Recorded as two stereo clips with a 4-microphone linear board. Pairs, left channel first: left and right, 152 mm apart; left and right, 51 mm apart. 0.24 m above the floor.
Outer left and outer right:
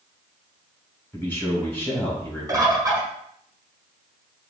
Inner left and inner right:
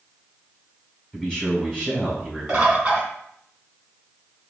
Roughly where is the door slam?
I don't hear a door slam.